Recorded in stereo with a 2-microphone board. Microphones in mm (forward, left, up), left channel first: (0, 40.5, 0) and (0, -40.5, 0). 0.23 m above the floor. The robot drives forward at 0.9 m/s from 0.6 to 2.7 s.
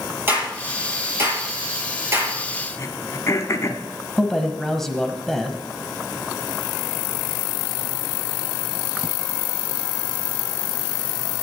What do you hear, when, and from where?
0.3 s a clap: 25° right (ahead or behind), 5 m; by 2.4 s 35° right (ahead or behind), 4 m
2.8 s throat clearing: 35° left (ahead or behind), 1.2 m
4.2 s a man speaking: 5° left (ahead or behind), 1.0 m